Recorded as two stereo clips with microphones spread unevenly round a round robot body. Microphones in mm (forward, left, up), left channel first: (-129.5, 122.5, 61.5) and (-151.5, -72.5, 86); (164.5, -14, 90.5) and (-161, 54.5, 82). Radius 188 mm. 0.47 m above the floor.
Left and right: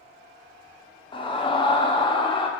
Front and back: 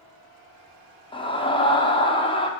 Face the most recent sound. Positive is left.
turn(degrees=55)